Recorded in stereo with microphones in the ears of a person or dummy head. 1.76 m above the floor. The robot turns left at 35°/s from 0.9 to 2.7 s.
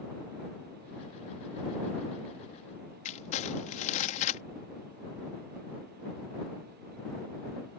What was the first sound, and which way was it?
Crumpling, 40° left (ahead or behind).